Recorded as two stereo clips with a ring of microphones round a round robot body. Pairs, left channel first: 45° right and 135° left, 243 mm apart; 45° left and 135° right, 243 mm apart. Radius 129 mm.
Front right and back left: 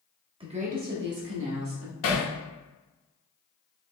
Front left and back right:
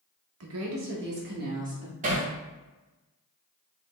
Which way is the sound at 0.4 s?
155° right.